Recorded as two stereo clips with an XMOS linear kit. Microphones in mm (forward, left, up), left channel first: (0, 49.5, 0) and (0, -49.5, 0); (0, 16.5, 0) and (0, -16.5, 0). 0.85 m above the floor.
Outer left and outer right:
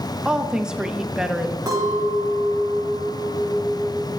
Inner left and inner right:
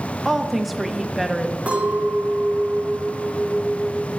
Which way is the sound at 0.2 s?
5° right (ahead or behind).